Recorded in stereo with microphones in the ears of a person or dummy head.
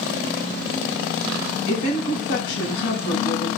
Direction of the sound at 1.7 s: 65° left (ahead or behind).